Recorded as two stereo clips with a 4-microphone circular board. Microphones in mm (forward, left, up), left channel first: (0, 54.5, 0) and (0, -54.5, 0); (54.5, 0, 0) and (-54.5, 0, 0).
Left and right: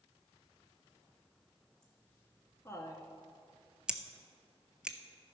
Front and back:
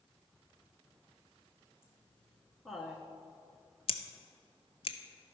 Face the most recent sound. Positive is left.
turn(degrees=-10)